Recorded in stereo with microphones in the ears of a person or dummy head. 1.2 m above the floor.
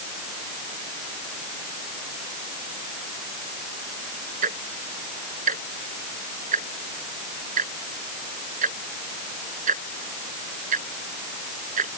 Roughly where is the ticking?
Right.